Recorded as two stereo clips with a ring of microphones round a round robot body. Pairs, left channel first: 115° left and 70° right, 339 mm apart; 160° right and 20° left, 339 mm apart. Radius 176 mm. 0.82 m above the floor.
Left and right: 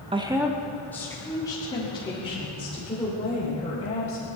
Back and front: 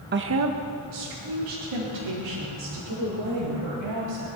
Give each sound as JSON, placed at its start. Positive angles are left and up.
{"t": 0.1, "sound": "a woman speaking", "azimuth_deg": -5, "distance_m": 0.9}